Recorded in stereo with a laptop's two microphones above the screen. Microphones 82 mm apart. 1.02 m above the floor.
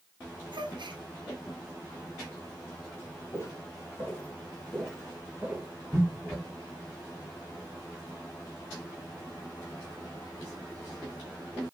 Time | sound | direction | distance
0.5 | a gasp | 70° right (ahead or behind) | 0.5 m
3.3 | footsteps | 35° left (ahead or behind) | 1.7 m